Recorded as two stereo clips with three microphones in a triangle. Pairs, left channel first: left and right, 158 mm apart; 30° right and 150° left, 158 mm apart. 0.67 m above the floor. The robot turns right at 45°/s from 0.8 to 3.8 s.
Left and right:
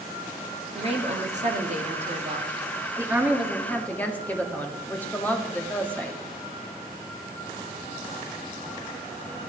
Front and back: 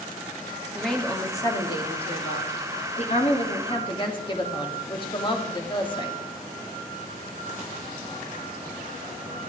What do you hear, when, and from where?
0.8 s a woman speaking: 120° right, 1.4 m; by 6.2 s 15° left, 1.4 m